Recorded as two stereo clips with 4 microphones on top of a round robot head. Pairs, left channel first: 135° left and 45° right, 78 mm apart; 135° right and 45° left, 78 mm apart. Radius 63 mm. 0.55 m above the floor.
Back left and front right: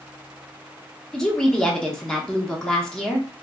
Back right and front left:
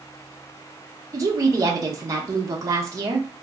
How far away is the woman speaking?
About 0.8 m.